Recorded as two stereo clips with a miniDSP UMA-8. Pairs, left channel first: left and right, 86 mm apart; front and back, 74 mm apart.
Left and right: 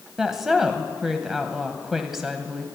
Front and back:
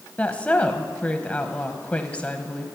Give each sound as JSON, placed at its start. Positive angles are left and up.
{"t": 0.2, "sound": "a woman speaking", "azimuth_deg": -15, "distance_m": 0.9}